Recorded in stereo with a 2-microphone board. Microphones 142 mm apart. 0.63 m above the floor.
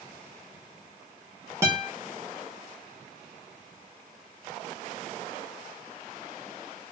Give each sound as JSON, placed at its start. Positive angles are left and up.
{"t": 1.6, "sound": "a guitar", "side_deg": -20, "distance_m": 1.0}